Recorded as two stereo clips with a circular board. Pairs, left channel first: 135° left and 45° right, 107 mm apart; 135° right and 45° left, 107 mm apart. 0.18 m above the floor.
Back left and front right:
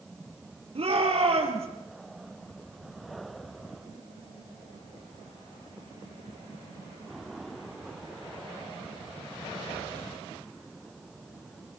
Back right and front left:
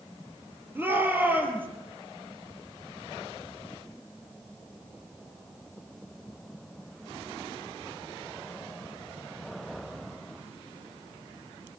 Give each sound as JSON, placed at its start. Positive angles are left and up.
{"t": 0.8, "sound": "a shout", "azimuth_deg": -25, "distance_m": 5.0}